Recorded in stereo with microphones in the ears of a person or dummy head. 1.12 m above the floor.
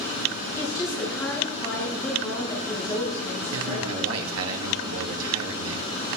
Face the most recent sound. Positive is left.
turn(degrees=-85)